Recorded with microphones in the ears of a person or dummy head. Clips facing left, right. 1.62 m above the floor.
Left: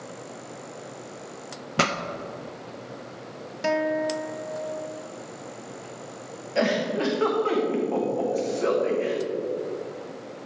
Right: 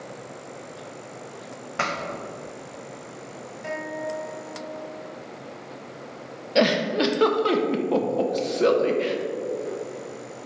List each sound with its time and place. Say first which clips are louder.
1.8 s a pop: left 4 dB; 50° left (ahead or behind), 0.6 m
3.6 s a guitar: left 7 dB; 85° left, 0.6 m
6.5 s a giggle: right 3 dB; 55° right (ahead or behind), 1.1 m